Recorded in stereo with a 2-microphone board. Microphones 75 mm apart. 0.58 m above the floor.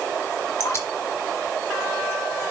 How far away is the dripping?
About 3.5 m.